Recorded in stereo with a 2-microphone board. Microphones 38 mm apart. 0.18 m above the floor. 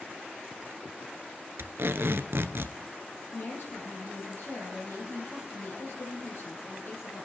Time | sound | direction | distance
1.6 | tape being pulled | 75° right (ahead or behind) | 0.6 m
3.3 | a woman speaking | 55° left (ahead or behind) | 5.5 m